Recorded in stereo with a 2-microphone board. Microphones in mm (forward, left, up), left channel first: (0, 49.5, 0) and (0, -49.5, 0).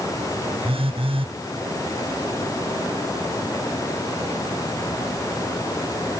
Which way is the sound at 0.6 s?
70° right (ahead or behind).